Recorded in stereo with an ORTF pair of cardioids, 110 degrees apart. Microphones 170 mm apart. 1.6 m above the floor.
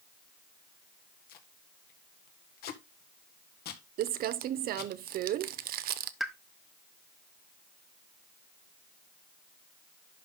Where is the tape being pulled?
65° left, 1.6 m.